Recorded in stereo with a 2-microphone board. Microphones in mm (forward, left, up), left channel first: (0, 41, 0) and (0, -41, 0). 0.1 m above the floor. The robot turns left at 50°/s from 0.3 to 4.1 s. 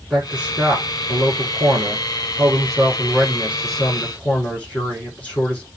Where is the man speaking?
10° right, 6 m; by 5.7 s 160° left, 6 m.